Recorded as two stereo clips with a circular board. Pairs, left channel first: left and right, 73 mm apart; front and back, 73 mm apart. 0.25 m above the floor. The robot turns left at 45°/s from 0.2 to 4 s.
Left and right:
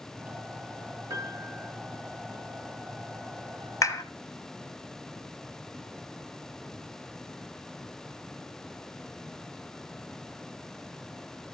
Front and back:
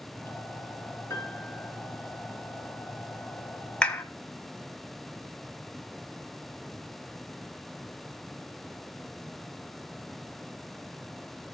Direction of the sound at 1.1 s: 60° right.